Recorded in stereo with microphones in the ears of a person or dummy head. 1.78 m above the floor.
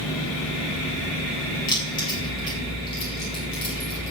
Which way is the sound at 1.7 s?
25° left (ahead or behind).